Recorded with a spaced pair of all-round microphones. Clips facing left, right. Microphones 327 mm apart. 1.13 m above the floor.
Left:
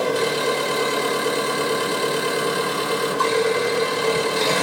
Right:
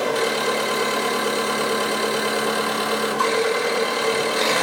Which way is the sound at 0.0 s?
35° left (ahead or behind).